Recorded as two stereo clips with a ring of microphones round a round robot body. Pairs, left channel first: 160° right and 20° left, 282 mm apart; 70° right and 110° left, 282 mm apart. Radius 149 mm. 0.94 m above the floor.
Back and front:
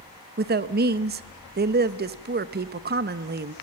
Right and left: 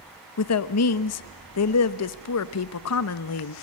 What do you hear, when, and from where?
0.4 s a woman speaking: 35° right, 0.8 m